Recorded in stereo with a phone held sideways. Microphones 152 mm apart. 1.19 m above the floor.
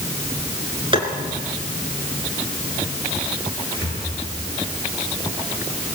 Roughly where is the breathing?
Right.